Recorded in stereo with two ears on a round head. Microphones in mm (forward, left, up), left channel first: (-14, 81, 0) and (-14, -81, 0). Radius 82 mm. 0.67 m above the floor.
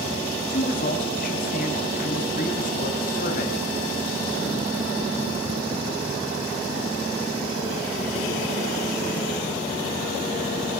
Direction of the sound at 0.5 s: 50° left (ahead or behind).